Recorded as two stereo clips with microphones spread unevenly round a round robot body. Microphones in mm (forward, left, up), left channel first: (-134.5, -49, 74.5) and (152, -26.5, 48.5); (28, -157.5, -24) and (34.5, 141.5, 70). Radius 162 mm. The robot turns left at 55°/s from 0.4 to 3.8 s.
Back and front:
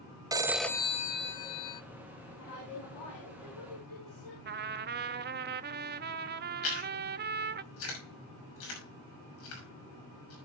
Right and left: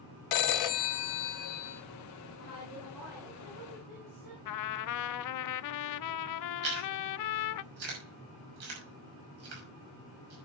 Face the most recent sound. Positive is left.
turn(degrees=135)